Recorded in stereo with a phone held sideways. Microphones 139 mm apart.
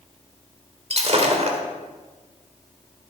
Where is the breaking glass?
50° right (ahead or behind), 1.6 m.